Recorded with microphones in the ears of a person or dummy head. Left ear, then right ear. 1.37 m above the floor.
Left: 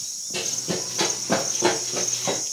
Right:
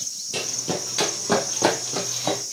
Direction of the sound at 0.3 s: 55° right (ahead or behind).